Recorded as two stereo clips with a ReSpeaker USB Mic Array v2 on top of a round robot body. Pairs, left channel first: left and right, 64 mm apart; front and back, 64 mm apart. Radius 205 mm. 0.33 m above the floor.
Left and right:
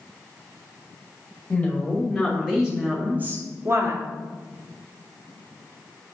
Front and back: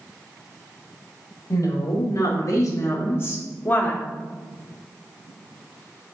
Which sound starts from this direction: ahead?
A woman speaking, at 1.5 s.